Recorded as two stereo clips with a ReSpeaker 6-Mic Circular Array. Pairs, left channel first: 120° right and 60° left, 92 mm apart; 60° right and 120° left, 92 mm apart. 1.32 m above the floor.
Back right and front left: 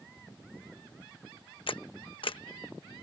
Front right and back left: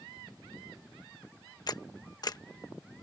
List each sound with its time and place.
1.7 s a camera shutter: 105° right